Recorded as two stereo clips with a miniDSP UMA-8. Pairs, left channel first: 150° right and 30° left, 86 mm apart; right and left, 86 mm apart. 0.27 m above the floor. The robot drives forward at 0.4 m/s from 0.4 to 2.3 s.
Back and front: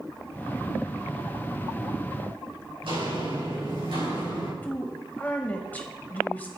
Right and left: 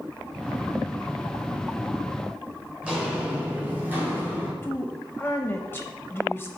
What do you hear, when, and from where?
2.8 s footsteps: 10° left, 3 m; by 4.5 s 25° left, 4 m
4.6 s a woman speaking: 105° right, 1.0 m